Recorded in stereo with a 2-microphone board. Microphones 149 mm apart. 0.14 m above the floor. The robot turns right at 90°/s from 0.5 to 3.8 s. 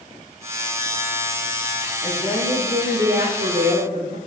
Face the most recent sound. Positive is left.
turn(degrees=-40)